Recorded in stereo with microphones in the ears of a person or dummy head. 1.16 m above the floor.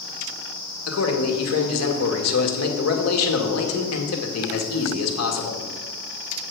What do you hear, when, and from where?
0.9 s a man speaking: 80° left, 1.9 m